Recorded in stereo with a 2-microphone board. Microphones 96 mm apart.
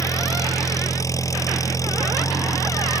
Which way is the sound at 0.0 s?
35° left (ahead or behind).